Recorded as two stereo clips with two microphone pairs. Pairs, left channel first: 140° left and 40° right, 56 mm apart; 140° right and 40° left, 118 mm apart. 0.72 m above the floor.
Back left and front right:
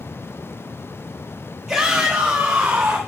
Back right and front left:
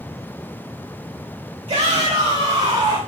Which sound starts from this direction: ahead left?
A shout, at 1.7 s.